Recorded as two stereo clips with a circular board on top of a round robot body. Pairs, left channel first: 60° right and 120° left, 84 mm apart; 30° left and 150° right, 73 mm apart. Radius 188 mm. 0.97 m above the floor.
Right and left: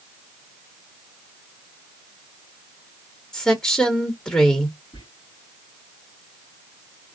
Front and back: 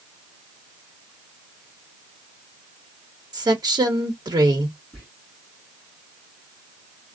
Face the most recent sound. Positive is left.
turn(degrees=-80)